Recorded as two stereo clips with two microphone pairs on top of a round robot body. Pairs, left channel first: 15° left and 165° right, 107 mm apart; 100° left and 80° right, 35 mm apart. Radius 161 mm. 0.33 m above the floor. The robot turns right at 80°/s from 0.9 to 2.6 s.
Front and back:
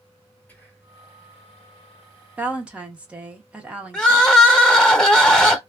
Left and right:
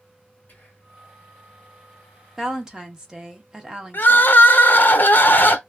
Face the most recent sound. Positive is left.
turn(degrees=105)